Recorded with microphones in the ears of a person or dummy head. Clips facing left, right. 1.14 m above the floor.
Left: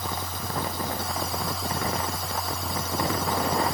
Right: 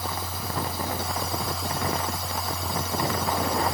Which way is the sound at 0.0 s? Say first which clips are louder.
Even; 5° right (ahead or behind).